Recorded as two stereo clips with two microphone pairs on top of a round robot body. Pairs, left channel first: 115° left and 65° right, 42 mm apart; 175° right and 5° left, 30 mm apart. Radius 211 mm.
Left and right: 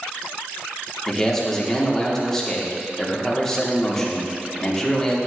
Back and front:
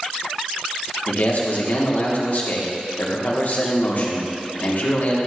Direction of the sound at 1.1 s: 165° right.